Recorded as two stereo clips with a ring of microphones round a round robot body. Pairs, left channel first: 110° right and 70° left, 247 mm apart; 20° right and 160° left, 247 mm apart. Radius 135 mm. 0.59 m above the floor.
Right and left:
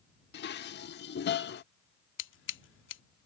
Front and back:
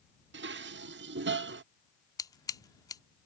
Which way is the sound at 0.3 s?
160° right.